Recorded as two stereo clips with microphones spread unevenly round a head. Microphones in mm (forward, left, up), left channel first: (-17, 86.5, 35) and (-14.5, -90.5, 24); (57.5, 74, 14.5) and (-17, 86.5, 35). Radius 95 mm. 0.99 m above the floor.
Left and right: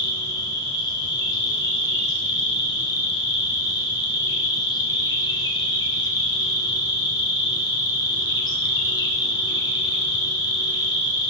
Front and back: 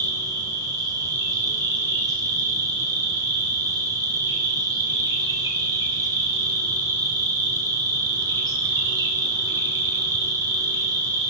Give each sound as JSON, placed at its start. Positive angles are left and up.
{"t": 0.0, "sound": "an insect", "azimuth_deg": 150, "distance_m": 1.2}